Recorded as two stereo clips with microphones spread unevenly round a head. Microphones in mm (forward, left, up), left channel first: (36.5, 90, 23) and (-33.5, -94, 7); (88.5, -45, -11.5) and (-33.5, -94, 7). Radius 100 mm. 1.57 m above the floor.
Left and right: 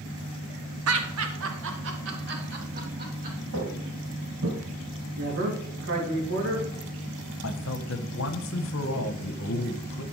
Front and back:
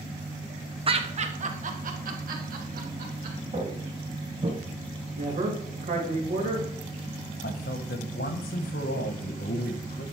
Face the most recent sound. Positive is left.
turn(degrees=55)